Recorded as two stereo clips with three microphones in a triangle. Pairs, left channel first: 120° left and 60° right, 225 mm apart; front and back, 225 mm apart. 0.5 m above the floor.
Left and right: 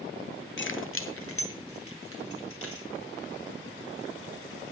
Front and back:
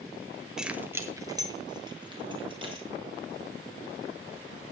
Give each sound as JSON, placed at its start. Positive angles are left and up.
{"t": 0.6, "sound": "keys jangling", "azimuth_deg": 95, "distance_m": 1.2}